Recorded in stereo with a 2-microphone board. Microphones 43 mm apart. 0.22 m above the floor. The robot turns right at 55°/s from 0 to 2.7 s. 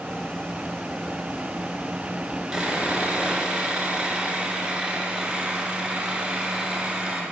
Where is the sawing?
15° right (ahead or behind), 1.0 m; by 7.2 s 20° right (ahead or behind), 1.0 m.